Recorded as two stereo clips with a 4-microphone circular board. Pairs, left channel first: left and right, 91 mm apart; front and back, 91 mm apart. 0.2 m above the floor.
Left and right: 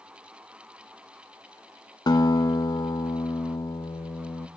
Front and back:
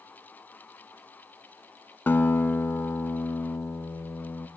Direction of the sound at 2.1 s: 65° left.